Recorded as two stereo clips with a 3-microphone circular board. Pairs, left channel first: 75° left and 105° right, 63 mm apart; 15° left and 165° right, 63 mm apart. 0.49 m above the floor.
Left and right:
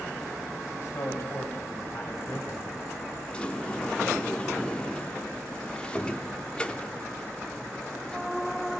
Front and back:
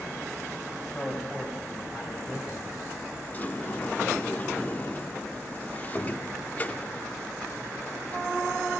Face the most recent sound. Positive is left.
turn(degrees=25)